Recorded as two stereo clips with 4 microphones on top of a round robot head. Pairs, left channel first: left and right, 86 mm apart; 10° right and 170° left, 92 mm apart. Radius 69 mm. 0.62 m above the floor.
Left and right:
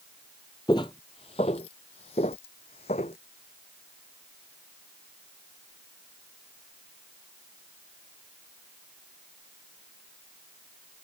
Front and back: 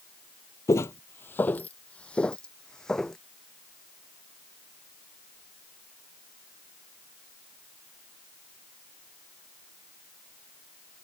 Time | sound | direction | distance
0.7 | footsteps | 40° left | ?